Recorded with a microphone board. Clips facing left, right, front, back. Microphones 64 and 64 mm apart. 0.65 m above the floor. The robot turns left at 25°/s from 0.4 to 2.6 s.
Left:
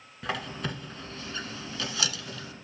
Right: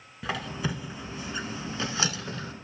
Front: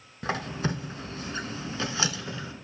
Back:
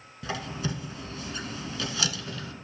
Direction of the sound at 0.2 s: 5° right.